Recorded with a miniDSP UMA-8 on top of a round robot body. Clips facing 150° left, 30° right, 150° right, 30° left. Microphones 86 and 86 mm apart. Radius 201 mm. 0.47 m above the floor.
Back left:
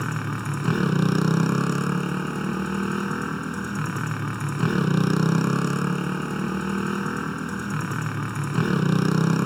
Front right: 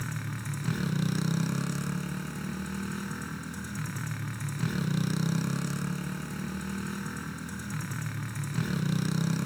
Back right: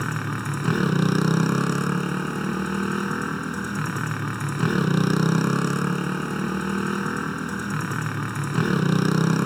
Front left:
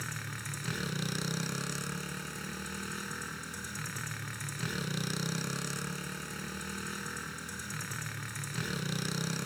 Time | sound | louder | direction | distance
0.0 | a motorcycle | back left 9 dB, back right 14 dB | 175° left | ?